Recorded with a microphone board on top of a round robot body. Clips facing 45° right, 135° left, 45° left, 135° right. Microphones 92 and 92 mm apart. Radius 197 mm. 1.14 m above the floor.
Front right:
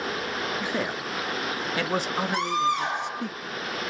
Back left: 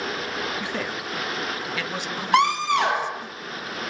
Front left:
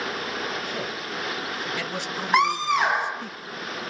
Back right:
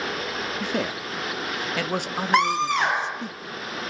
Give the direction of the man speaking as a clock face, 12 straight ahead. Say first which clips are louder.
Front right 1 dB, back right 4 dB; 4 o'clock.